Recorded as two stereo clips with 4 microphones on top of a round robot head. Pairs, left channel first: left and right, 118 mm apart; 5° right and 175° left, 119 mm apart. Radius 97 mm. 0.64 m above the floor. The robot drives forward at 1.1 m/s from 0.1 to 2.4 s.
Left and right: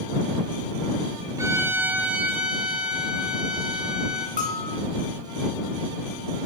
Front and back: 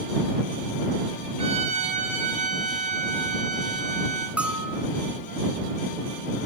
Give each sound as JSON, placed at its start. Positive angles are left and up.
{"t": 1.4, "sound": "a violin", "azimuth_deg": -150, "distance_m": 0.7}
{"t": 4.4, "sound": "a bell", "azimuth_deg": 95, "distance_m": 2.5}